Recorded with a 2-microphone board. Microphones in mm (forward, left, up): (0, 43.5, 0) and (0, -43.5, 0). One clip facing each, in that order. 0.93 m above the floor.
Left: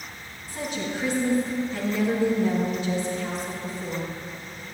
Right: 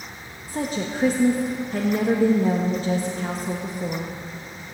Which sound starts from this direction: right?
A woman speaking, at 0.5 s.